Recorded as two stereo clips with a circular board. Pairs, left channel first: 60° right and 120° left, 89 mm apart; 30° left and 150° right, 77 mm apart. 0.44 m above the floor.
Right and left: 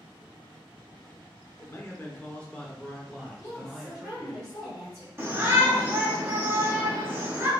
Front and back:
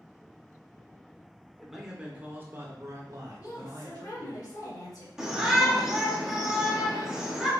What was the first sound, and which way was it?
A man speaking, 60° right.